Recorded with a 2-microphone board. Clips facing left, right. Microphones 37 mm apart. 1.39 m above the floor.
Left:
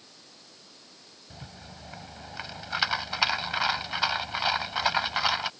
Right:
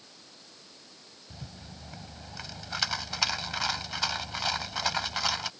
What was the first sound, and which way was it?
A rattle, 20° left (ahead or behind).